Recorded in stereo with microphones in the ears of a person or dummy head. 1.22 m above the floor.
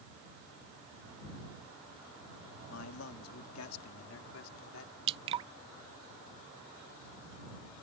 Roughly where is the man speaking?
Left.